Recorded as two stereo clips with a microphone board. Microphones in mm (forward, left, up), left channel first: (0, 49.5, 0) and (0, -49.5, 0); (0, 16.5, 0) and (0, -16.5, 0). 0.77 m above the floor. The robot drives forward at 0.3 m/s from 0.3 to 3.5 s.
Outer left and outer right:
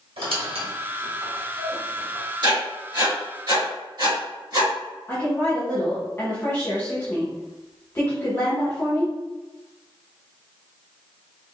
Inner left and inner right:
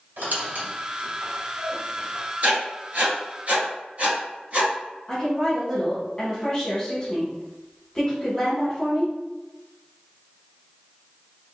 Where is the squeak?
85° right, 1.5 m; by 2.2 s 65° right (ahead or behind), 1.6 m.